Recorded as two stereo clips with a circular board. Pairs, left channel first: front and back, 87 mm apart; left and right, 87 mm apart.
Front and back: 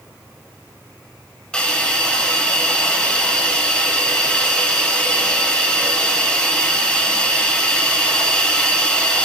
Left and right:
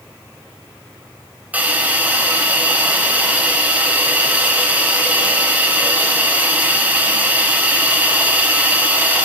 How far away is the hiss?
About 0.9 m.